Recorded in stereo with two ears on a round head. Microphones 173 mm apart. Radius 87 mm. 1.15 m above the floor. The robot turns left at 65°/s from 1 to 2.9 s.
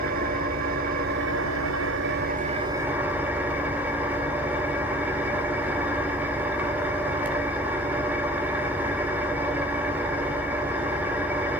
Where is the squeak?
No squeak in this recording.